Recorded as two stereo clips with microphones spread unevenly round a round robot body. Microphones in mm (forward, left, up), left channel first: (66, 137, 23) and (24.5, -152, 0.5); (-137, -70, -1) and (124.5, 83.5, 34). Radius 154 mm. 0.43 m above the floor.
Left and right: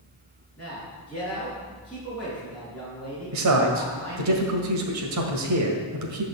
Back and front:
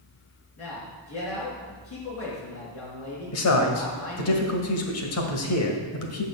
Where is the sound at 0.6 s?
170° left, 4.5 m.